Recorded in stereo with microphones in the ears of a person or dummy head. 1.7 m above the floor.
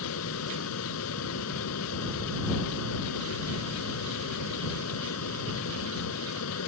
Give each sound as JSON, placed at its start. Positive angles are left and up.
{"t": 0.0, "sound": "a fan", "side_deg": 85}